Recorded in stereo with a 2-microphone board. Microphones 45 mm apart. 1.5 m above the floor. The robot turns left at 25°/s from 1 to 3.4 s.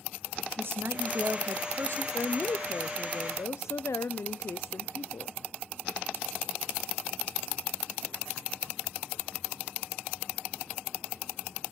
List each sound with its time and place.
0.6 s a woman speaking: 55° right (ahead or behind), 0.6 m; by 2.0 s 80° right, 0.6 m
2.1 s a woman speaking: 125° left, 0.6 m; by 5.4 s 90° left, 0.6 m